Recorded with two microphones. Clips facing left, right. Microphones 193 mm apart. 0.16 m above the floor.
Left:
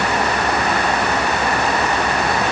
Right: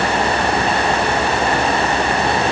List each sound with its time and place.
Only background noise.